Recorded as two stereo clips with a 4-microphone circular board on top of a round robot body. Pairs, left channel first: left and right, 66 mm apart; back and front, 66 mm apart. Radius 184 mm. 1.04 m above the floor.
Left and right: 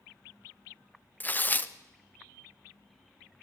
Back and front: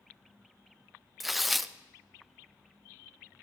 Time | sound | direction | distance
1.2 | tearing paper | 90° left | 0.7 m